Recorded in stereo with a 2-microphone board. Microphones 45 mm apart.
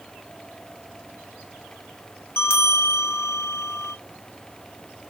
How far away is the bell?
About 0.7 m.